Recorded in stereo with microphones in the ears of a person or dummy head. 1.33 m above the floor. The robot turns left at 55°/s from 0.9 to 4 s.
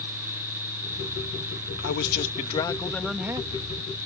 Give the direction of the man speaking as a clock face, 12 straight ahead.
10 o'clock.